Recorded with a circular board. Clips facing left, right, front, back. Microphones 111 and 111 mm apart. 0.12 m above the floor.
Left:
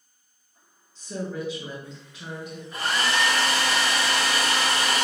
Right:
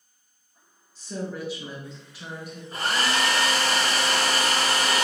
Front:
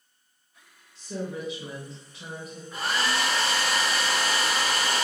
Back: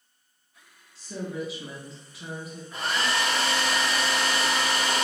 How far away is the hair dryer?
About 1.0 m.